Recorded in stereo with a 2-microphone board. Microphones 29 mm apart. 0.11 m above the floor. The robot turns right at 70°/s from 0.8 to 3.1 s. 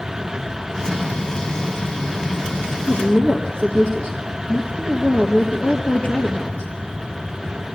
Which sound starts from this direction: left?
A woman speaking, at 2.8 s.